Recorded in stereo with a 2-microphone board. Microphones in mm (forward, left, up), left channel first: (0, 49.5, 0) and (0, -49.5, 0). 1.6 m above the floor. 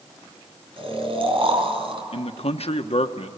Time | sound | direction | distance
0.8 | snoring | 60° right (ahead or behind) | 4.5 m
2.1 | a man speaking | 75° left (ahead or behind) | 1.2 m